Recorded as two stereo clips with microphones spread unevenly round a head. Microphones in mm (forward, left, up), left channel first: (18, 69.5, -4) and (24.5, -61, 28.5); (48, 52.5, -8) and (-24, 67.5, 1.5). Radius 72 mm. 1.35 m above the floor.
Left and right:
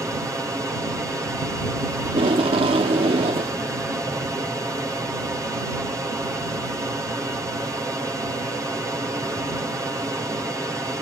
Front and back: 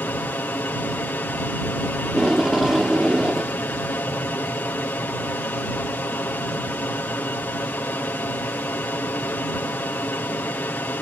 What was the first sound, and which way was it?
An aircraft, 20° right.